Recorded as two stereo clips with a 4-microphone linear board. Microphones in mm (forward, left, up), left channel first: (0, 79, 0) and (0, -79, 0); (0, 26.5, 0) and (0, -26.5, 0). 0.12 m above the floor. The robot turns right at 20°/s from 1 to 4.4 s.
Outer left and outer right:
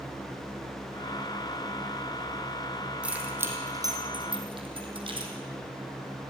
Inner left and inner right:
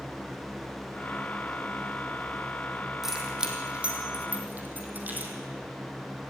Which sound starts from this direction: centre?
Keys jangling, at 3.0 s.